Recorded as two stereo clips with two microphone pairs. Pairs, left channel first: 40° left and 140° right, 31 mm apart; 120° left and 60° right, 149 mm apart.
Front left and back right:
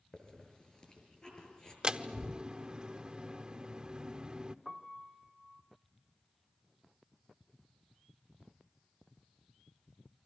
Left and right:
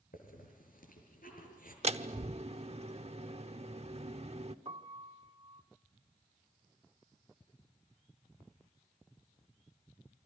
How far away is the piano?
About 1.5 m.